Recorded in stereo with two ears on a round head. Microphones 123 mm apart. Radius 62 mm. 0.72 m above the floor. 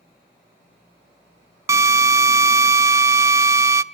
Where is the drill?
20° right (ahead or behind), 0.6 m.